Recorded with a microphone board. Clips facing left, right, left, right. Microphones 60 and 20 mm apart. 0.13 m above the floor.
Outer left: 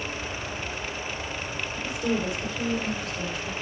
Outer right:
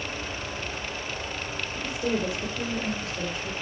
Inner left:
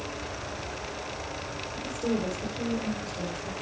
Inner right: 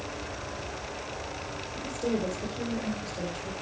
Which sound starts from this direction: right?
A woman speaking, at 1.8 s.